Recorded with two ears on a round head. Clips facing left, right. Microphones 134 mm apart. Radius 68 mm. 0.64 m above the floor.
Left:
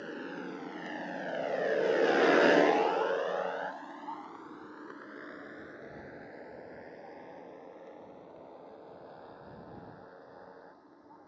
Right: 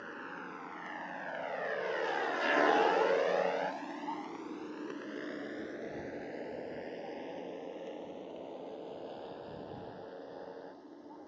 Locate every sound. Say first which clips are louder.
0.0 s a motorcycle: left 6 dB; 35° left (ahead or behind); by 11.3 s 30° right (ahead or behind)